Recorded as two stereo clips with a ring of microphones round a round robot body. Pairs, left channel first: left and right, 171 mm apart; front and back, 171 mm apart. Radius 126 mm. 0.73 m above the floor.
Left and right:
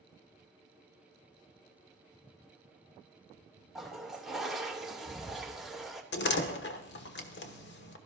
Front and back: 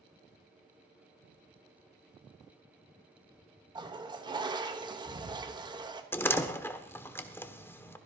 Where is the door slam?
80° left, 1.2 m.